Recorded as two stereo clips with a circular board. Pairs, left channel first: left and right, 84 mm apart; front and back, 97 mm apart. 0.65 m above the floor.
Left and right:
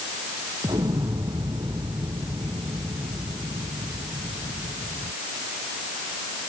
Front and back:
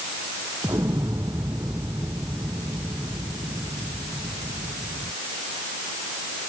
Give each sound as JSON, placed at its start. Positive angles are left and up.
{"t": 0.6, "sound": "an explosion", "azimuth_deg": -125}